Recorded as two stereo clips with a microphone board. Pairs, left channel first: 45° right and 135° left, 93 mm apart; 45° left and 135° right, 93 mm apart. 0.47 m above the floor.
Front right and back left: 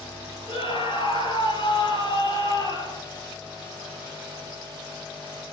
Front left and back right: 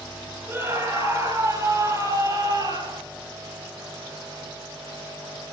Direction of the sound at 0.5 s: 75° right.